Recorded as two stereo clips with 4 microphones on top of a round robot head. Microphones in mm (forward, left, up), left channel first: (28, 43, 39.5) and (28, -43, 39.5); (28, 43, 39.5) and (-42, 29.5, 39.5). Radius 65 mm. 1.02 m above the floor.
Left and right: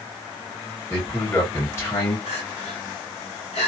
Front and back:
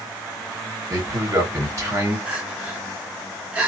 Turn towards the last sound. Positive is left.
turn(degrees=120)